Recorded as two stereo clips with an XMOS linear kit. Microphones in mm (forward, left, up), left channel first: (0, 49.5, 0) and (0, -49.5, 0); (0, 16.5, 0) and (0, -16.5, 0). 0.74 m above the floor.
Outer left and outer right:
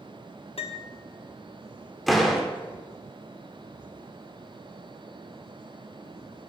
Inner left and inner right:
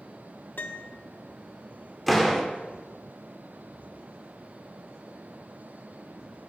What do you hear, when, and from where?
0.6 s a piano: 80° left, 0.6 m
2.1 s a door slam: centre (ahead or behind), 1.1 m